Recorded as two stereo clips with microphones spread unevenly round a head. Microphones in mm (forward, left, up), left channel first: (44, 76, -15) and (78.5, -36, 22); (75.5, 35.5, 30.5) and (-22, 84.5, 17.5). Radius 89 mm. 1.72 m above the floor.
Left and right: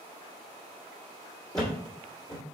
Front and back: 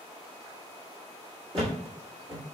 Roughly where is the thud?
Behind.